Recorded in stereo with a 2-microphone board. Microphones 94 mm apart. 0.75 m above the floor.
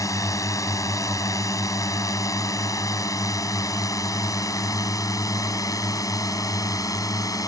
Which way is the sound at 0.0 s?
35° left (ahead or behind).